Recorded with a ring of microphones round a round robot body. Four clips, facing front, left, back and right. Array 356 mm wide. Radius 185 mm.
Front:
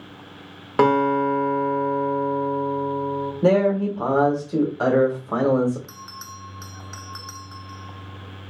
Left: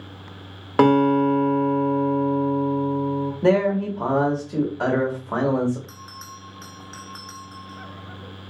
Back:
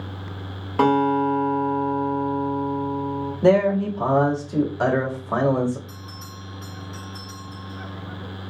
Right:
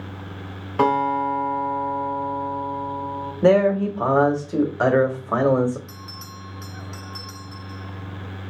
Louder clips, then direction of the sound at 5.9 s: Right 1 dB, front 1 dB; 15° right.